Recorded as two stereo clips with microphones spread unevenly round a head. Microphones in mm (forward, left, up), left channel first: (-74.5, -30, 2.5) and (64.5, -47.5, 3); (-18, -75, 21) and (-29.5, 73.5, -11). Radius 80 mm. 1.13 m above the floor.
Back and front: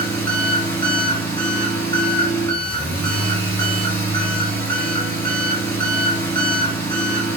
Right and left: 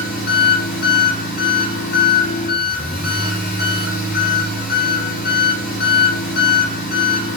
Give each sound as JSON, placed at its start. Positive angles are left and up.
{"t": 0.0, "sound": "an engine running", "azimuth_deg": -115, "distance_m": 2.5}